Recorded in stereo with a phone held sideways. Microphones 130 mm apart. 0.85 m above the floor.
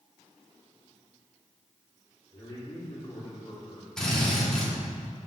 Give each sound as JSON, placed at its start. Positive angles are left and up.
{"t": 2.3, "sound": "a man speaking", "side_deg": 30, "distance_m": 2.5}
{"t": 4.0, "sound": "a drill", "side_deg": 5, "distance_m": 2.0}